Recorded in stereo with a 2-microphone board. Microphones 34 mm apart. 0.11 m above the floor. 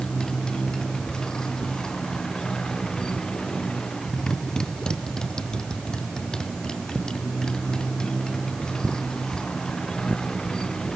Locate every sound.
0.0 s a motorcycle: 20° left (ahead or behind)